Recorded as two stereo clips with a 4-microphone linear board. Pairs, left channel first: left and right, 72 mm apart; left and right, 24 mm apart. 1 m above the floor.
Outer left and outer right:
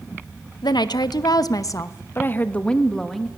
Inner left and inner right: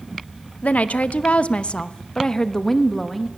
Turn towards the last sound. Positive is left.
turn(degrees=0)  # may be behind; listen again after turning